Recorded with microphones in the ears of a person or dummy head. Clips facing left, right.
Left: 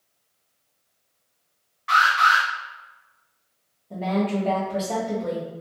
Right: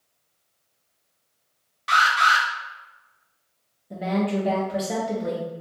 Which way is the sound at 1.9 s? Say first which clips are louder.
Left 1 dB; 45° right (ahead or behind).